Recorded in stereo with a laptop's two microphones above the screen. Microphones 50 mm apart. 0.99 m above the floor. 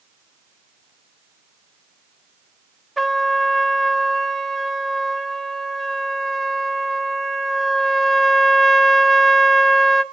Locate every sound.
3.0 s a trumpet: centre (ahead or behind), 1.7 m